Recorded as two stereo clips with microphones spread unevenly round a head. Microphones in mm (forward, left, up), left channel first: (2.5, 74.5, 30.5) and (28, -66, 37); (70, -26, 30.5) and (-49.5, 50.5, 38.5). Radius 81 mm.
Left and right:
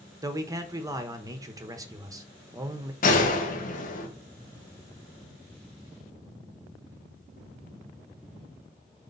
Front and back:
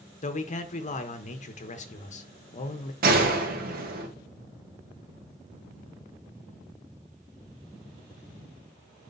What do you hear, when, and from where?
0.2 s a man speaking: 15° right, 1.0 m
3.0 s a gunshot: 130° left, 1.2 m